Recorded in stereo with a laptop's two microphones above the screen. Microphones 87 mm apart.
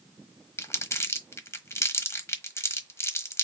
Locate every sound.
0.6 s crumpling: 30° left (ahead or behind), 1.1 m